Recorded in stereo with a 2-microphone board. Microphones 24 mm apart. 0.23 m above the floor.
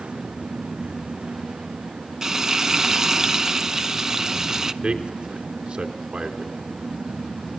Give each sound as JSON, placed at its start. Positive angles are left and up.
{"t": 2.2, "sound": "frying", "side_deg": -20, "distance_m": 0.7}
{"t": 4.8, "sound": "a man speaking", "side_deg": -50, "distance_m": 3.0}